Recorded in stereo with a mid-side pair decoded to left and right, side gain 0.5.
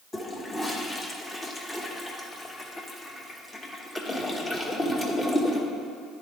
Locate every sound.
0.1 s a toilet flushing: 25° left, 1.0 m